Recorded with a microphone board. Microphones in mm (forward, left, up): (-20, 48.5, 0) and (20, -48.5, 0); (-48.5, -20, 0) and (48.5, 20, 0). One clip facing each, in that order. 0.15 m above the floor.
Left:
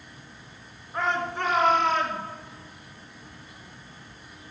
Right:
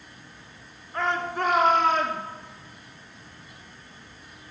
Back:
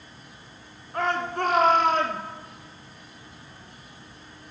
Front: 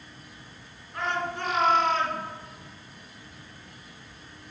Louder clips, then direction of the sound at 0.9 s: Right 1 dB, back 4 dB; 170° right.